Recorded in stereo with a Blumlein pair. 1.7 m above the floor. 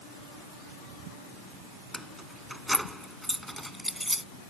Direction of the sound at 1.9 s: Straight ahead.